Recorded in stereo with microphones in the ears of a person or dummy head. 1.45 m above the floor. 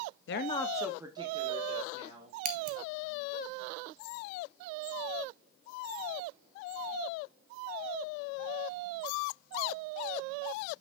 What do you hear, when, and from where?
0.3 s a woman speaking: 60° left (ahead or behind), 0.6 m; by 2.4 s 35° right (ahead or behind), 3 m
2.5 s scissors: 45° right (ahead or behind), 0.6 m